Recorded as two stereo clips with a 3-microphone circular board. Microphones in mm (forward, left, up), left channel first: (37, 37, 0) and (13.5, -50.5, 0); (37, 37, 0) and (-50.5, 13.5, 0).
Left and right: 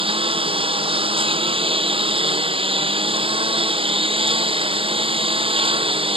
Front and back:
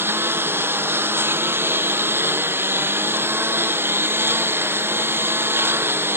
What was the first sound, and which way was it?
A lawn mower, 100° right.